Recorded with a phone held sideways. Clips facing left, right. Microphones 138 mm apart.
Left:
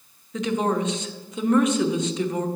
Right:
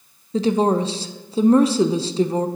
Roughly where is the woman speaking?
Right.